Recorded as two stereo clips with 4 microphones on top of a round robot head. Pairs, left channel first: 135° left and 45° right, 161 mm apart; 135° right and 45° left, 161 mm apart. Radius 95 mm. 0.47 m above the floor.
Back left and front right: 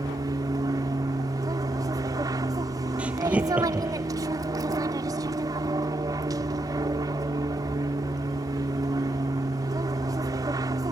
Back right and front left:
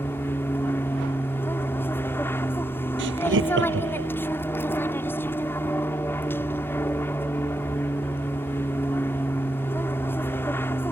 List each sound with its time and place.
0.0 s an aircraft: 75° right
3.0 s laughter: 40° left